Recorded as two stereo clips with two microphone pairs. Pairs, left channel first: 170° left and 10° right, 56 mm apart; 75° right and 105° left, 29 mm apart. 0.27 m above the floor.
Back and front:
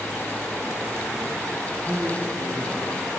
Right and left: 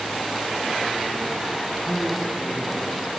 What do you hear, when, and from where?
1.6 s a man speaking: 140° right, 2 m; by 3.1 s 120° right, 2.5 m